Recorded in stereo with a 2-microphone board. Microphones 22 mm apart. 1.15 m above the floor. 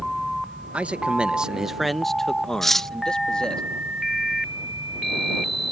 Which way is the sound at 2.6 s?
15° left (ahead or behind).